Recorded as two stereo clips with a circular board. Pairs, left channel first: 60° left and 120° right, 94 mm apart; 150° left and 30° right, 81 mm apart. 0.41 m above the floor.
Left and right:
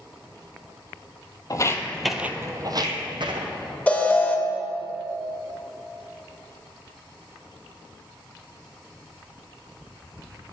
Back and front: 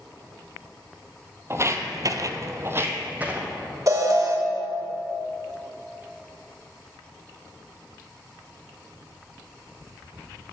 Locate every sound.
1.5 s footsteps: 20° left, 0.8 m; by 3.5 s 100° right, 1.4 m
3.9 s an alarm: 10° right, 0.7 m